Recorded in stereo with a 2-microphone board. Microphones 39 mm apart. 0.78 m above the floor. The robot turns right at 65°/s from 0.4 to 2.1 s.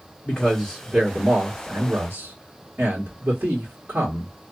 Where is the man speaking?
150° left, 1.4 m; by 4.3 s 100° right, 1.4 m.